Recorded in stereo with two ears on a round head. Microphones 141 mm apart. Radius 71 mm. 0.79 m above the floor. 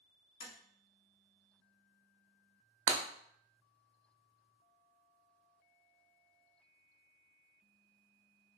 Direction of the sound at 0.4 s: 40° left (ahead or behind).